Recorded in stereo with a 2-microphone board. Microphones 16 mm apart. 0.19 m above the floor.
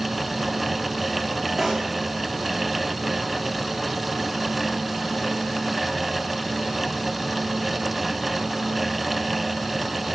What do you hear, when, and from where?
1.6 s a pop: 10° right (ahead or behind), 4 m